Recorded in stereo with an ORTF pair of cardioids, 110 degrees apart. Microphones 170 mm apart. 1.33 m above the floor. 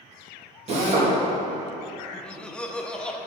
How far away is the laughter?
About 0.8 m.